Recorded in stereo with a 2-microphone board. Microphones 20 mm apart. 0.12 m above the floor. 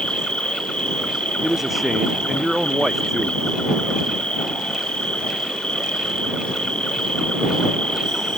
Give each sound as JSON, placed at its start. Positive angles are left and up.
{"t": 0.0, "sound": "an insect", "side_deg": 80}
{"t": 1.4, "sound": "a man speaking", "side_deg": -10}